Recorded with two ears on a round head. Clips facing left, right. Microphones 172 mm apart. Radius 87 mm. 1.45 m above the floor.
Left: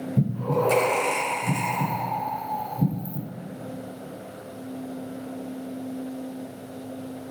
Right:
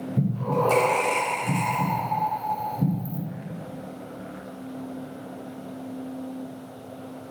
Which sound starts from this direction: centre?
Breathing, at 0.2 s.